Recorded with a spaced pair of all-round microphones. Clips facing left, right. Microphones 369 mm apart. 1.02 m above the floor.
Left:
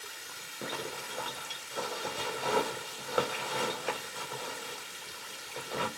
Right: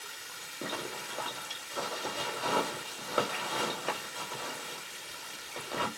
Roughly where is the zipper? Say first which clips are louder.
Even; centre.